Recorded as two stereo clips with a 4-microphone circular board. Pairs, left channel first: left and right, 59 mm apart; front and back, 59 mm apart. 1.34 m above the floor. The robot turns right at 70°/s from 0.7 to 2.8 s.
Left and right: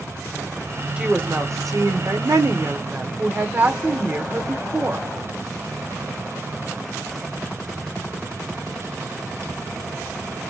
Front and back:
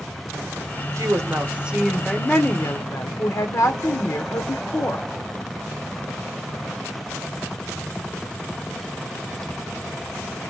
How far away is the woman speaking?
About 0.9 m.